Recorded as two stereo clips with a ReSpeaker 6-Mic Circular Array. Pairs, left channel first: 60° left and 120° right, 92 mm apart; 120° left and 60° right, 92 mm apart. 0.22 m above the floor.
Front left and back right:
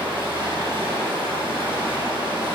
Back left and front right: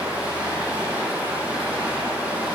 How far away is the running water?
About 4.5 m.